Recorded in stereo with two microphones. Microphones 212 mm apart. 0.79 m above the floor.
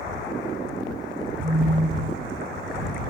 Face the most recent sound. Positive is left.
turn(degrees=-90)